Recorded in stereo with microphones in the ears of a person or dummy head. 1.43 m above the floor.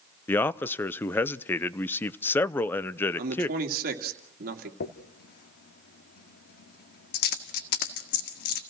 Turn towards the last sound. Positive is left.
turn(degrees=60)  # may be behind; listen again after turning